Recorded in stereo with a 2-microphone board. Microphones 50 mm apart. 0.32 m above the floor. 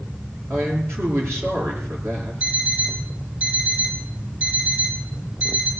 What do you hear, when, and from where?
0.5 s a man speaking: 60° right (ahead or behind), 5.5 m
2.4 s an alarm clock: 30° right (ahead or behind), 5 m